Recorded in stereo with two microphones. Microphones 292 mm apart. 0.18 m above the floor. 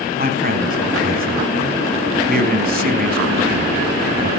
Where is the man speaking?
30° right (ahead or behind), 1.3 m.